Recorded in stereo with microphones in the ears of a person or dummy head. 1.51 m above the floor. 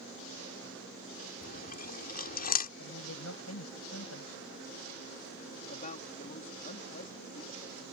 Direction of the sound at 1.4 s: 50° left (ahead or behind).